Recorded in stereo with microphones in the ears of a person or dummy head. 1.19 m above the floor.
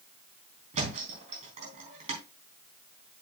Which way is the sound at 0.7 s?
40° right (ahead or behind).